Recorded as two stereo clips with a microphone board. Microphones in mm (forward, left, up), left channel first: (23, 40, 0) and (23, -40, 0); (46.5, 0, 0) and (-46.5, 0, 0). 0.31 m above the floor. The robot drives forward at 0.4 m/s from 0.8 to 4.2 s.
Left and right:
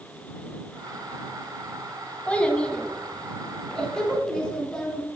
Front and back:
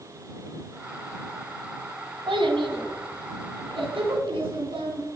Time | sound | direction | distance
2.3 | a child speaking | 160° left | 1.3 m